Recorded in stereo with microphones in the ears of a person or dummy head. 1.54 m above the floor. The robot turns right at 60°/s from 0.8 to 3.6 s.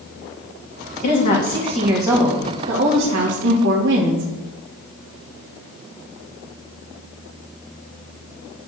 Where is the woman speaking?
135° left, 1.7 m; by 4.3 s 70° right, 1.7 m.